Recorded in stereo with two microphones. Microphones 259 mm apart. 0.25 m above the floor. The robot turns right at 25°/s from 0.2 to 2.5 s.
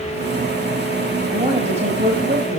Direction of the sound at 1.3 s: 20° right (ahead or behind).